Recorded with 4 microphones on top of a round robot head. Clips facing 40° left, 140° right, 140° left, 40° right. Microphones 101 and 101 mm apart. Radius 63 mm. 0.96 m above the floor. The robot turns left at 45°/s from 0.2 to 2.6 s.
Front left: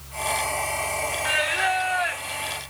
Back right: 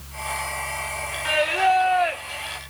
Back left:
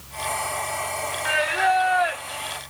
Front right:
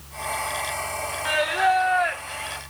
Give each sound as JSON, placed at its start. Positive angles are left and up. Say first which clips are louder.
{"t": 1.2, "sound": "singing", "louder": "back right 7 dB, even", "azimuth_deg": -105, "distance_m": 0.8}